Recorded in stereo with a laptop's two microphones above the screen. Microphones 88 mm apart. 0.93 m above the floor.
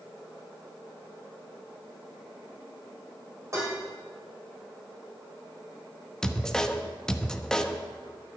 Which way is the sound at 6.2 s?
10° left (ahead or behind).